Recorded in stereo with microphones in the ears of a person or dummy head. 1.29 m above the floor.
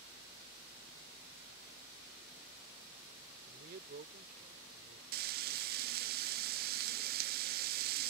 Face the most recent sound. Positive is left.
turn(degrees=-45)  # may be behind; listen again after turning